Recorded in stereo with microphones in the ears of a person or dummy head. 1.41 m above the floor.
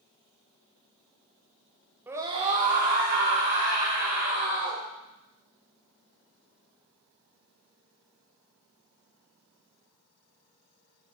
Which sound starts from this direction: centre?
A scream, at 2.1 s.